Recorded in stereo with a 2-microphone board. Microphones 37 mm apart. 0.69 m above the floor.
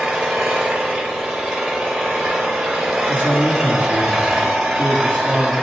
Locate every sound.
0.0 s an engine running: 10° right (ahead or behind), 2.5 m
3.1 s a man speaking: 55° left (ahead or behind), 1.4 m